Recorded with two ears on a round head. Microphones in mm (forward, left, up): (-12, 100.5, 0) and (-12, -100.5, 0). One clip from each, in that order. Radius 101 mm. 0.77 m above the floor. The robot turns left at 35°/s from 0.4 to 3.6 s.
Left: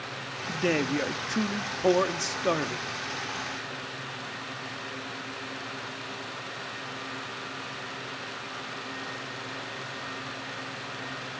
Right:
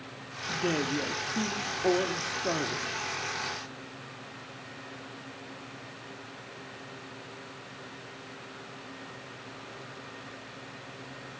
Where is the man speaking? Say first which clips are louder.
Left 2 dB; 120° left, 1.3 m; by 2.9 s 35° left, 1.3 m.